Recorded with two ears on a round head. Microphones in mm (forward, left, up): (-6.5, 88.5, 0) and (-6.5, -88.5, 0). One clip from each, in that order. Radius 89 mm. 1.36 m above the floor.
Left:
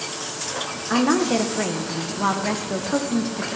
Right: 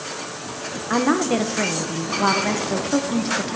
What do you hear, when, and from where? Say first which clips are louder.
0.9 s a woman speaking: even; 10° right (ahead or behind), 0.9 m